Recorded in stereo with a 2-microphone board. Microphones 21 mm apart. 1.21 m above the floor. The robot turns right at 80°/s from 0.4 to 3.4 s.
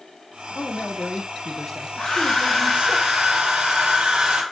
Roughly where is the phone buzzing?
I don't hear a phone buzzing.